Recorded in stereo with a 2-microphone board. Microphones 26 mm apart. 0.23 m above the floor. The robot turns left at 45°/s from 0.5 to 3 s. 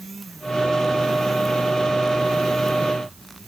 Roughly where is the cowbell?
No cowbell in this recording.